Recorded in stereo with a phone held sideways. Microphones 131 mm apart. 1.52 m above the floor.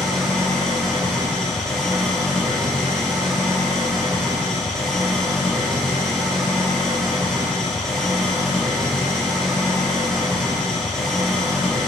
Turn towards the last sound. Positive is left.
turn(degrees=5)  # may be behind; listen again after turning